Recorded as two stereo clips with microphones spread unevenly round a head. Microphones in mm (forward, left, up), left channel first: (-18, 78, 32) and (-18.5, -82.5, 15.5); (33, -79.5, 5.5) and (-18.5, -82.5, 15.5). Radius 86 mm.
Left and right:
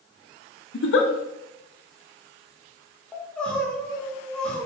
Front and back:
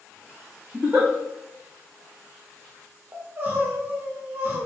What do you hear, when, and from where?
0.7 s a giggle: 110° left, 0.6 m
3.1 s crying: 165° left, 0.7 m